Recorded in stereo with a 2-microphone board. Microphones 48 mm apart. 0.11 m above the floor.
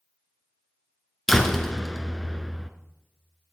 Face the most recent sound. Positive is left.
turn(degrees=5)  # may be behind; listen again after turning